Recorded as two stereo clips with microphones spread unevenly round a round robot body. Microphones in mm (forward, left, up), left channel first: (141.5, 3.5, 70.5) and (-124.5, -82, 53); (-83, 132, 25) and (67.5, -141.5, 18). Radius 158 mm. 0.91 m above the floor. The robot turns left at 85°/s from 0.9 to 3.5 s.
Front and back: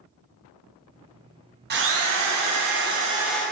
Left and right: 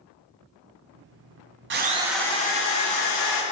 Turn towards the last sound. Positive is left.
turn(degrees=95)